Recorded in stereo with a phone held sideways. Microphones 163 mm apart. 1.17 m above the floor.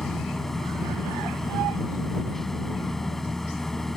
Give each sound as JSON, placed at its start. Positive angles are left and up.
{"t": 0.0, "sound": "a machine running", "side_deg": 0}